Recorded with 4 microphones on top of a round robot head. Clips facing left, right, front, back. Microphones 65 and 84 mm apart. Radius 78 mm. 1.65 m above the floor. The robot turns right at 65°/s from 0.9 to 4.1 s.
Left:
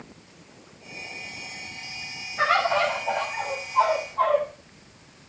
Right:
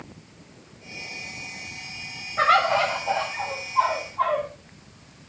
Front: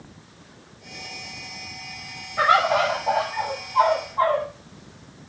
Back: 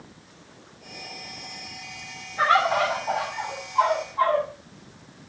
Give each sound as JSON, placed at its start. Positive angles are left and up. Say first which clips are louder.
{"t": 2.4, "sound": "a bird", "louder": "right 2 dB, front 2 dB", "azimuth_deg": -45, "distance_m": 6.5}